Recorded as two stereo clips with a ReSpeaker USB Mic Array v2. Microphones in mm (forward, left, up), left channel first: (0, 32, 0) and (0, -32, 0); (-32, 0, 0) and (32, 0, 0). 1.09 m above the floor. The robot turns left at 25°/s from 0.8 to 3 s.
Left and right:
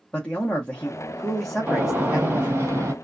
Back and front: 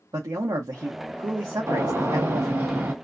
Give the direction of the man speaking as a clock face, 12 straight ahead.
12 o'clock.